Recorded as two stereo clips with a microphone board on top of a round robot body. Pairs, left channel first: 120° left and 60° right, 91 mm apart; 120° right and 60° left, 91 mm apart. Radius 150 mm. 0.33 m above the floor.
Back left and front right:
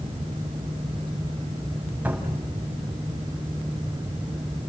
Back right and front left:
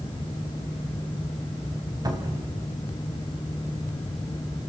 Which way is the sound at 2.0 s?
10° left.